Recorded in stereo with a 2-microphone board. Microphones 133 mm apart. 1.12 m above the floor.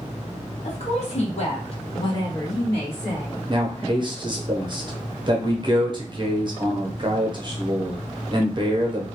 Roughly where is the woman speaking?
Left.